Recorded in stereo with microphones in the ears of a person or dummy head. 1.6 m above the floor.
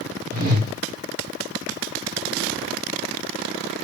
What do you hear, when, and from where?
0.3 s a whoosh: 50° right (ahead or behind), 0.9 m